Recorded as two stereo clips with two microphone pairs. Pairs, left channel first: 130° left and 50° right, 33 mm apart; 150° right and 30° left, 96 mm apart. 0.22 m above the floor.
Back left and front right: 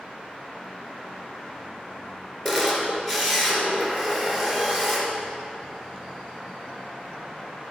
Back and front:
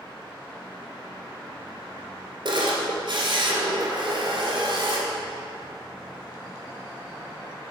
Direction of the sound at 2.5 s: 50° left.